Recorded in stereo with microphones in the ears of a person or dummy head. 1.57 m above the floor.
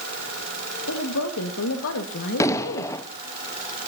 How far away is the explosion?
About 1.0 m.